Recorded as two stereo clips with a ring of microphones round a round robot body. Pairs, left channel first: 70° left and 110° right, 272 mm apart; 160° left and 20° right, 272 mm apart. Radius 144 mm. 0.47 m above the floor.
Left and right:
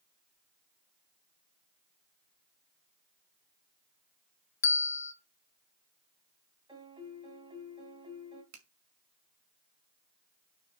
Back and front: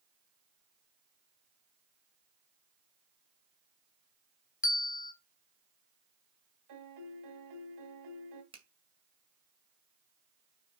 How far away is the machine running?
I don't hear a machine running.